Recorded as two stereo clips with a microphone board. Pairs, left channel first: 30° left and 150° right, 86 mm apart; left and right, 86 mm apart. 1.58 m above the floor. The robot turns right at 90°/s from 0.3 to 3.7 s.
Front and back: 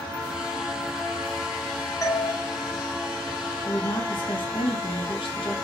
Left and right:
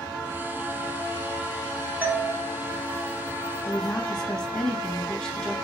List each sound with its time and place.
2.0 s a doorbell: 20° right, 0.6 m; by 2.3 s 10° left, 0.6 m
3.6 s a woman speaking: 5° left, 0.9 m; by 5.5 s 10° left, 0.9 m